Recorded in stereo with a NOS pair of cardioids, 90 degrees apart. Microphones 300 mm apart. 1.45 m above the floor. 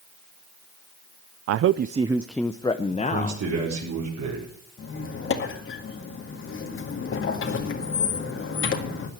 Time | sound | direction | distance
1.5 | a man speaking | 60° right | 0.5 m
2.9 | a man speaking | 65° right | 5 m
4.8 | a squeak | 45° left | 2 m